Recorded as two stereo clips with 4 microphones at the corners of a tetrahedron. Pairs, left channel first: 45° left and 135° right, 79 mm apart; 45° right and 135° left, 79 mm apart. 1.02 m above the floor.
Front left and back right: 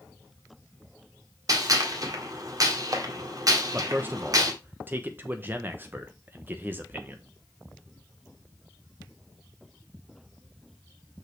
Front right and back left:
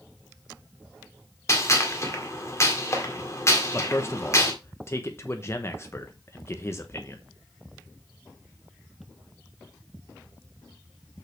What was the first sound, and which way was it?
A gunshot, 95° right.